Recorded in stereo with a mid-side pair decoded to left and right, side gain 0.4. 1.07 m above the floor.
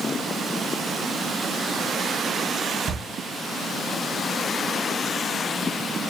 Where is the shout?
35° right, 3 m.